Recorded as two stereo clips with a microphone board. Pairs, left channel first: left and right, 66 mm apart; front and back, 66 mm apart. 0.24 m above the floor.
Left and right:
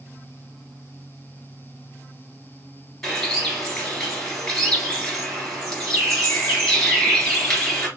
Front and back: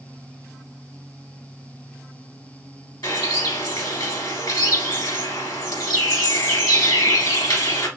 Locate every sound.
3.0 s a bird: 10° left, 3 m